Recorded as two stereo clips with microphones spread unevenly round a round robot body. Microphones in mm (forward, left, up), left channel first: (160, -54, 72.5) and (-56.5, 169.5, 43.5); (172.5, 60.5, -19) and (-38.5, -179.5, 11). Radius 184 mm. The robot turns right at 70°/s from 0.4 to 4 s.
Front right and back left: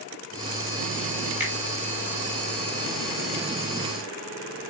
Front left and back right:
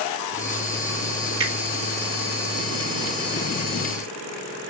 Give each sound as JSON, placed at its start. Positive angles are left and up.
{"t": 1.4, "sound": "a finger snap", "azimuth_deg": -145, "distance_m": 3.0}